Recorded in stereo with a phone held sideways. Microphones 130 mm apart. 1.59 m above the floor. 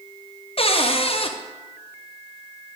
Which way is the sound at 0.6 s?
45° left (ahead or behind).